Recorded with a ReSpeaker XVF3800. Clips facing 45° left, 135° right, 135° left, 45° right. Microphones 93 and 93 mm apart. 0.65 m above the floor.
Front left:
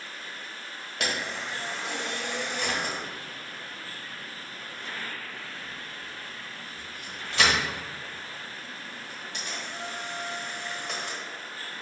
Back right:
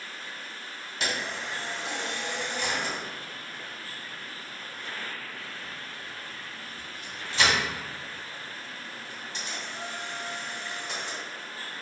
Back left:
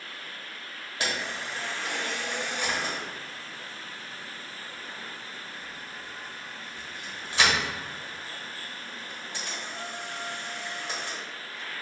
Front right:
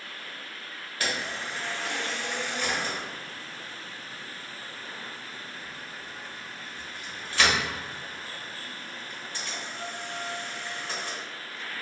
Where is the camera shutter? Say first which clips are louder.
Front left 1 dB, even; 65° left, 1.3 m.